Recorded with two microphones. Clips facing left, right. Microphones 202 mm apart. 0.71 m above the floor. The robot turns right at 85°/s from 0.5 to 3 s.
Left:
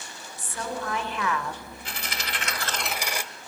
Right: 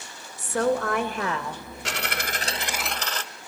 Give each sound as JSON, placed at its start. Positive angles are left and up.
{"t": 0.4, "sound": "a woman speaking", "azimuth_deg": -100, "distance_m": 2.5}
{"t": 1.9, "sound": "a dropped coin", "azimuth_deg": -85, "distance_m": 1.2}